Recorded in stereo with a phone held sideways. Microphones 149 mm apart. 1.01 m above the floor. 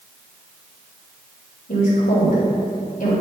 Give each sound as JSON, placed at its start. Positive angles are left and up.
{"t": 1.7, "sound": "a woman speaking", "side_deg": 70, "distance_m": 3.0}